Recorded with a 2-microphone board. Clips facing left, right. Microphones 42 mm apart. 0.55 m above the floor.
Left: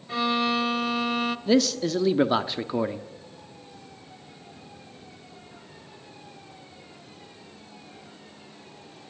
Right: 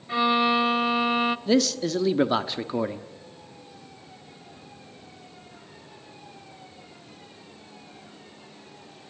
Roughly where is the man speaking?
Centre.